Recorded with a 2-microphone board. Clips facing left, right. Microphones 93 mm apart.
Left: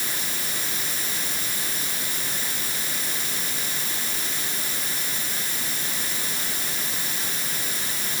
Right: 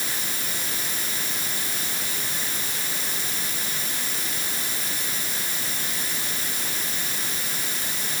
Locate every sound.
Only background noise.